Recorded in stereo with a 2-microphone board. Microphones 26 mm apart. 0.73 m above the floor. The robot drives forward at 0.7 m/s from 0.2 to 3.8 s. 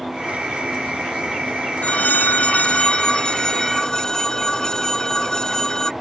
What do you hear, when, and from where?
1.8 s a phone ringing: 65° left (ahead or behind); by 5.9 s 25° left (ahead or behind)